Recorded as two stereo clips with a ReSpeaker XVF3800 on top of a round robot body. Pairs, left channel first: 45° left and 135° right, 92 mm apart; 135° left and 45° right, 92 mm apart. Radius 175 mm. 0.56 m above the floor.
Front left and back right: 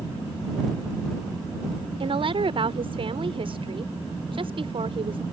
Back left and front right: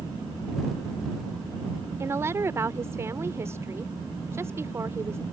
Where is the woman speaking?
110° right.